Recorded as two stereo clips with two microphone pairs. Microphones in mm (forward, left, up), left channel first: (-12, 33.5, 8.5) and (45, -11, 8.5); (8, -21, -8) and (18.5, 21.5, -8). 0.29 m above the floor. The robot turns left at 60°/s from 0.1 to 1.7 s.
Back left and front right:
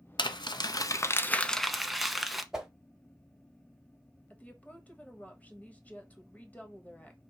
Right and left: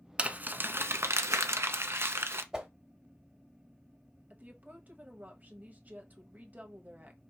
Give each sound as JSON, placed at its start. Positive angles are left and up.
{"t": 0.2, "sound": "crumpling", "azimuth_deg": 140, "distance_m": 0.6}
{"t": 2.5, "sound": "a whoosh", "azimuth_deg": 30, "distance_m": 1.0}
{"t": 4.3, "sound": "a woman speaking", "azimuth_deg": 85, "distance_m": 1.1}